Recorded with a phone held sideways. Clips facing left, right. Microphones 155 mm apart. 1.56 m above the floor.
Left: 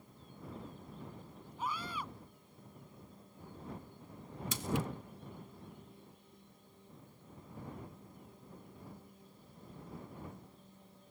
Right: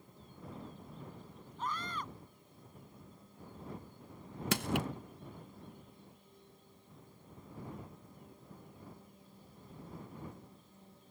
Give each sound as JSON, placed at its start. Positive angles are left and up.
{"t": 1.6, "sound": "a scream", "side_deg": 10}
{"t": 4.5, "sound": "crushing", "side_deg": -70}